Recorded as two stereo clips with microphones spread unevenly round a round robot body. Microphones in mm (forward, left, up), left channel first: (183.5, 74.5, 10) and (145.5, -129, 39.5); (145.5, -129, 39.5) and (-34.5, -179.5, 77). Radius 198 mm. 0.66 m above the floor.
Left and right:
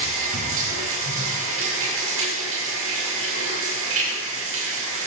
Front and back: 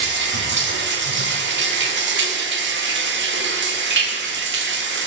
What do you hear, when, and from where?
0.0 s running water: 145° right, 2.5 m